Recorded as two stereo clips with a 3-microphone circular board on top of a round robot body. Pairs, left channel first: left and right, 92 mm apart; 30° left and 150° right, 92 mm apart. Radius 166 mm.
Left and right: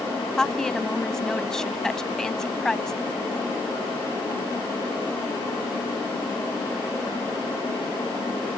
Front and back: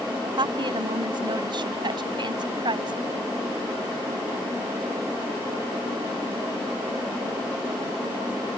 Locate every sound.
0.4 s a woman speaking: 175° left